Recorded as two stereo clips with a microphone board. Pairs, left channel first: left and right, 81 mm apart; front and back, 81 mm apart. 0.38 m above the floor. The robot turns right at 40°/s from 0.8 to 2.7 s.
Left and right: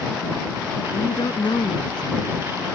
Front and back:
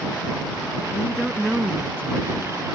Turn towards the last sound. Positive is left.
turn(degrees=145)